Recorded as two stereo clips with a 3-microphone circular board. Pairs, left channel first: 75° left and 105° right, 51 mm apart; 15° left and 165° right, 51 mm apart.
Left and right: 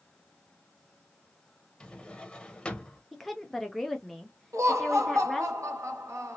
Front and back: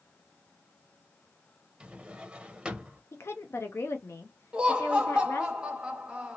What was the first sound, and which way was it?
A drawer, 135° left.